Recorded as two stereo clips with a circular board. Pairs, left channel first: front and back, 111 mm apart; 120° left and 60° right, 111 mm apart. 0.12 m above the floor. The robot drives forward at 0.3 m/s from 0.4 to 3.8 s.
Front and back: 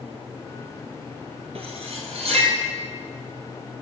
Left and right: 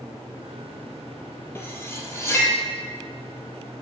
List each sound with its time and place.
1.6 s cutlery clinking: 175° right, 1.4 m